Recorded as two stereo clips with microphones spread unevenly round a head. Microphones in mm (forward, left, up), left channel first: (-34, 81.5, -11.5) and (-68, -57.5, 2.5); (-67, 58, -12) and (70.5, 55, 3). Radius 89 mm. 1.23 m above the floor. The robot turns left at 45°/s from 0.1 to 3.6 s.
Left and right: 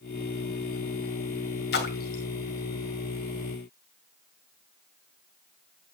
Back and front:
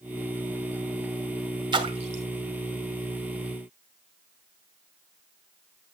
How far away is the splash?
About 2.5 m.